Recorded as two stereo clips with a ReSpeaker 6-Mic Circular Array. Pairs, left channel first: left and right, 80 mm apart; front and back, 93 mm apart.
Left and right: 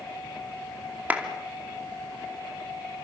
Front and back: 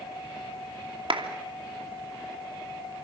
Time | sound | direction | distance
1.1 | a clap | 160° right | 2.5 m